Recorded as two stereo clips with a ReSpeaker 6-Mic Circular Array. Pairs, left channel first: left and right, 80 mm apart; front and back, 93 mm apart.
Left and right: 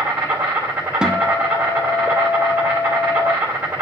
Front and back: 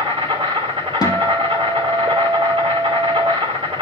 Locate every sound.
0.0 s an insect: 150° right, 2.5 m
1.0 s a guitar: 15° right, 0.8 m